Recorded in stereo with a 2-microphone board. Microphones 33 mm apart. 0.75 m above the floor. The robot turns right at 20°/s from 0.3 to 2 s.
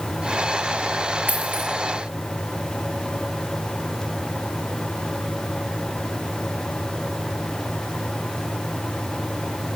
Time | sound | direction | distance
1.3 | a dropped coin | 55° right (ahead or behind) | 6.5 m